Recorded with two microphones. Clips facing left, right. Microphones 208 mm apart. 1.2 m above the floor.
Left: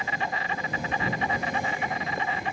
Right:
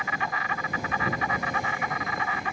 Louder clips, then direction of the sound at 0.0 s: Left 1 dB; 30° left (ahead or behind).